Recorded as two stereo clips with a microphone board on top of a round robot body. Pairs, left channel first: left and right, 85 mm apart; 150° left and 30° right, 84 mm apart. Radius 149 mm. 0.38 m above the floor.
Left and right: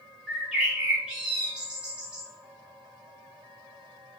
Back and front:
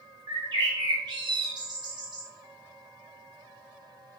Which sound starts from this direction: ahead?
A bird, at 0.3 s.